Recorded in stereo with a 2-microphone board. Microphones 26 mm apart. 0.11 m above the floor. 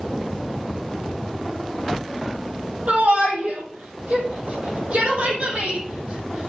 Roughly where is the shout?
Right.